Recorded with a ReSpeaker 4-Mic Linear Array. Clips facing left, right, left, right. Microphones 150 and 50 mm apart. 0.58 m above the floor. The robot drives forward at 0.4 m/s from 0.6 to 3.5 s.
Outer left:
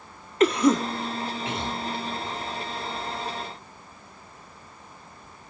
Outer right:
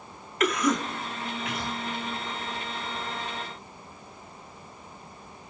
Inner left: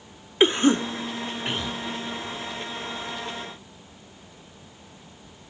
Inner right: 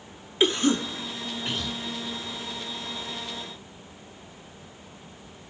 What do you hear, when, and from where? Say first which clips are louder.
0.4 s a cough: outer left 6 dB, inner left 3 dB; 30° left (ahead or behind), 1.2 m; by 1.8 s 25° left (ahead or behind), 1.4 m